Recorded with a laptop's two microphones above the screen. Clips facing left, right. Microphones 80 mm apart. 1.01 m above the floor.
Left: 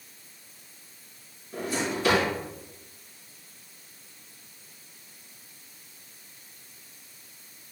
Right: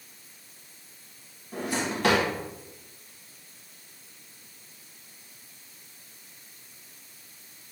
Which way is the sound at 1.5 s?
75° right (ahead or behind).